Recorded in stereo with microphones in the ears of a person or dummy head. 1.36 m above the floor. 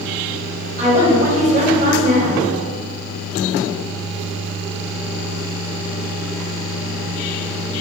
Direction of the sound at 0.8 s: 45° right (ahead or behind).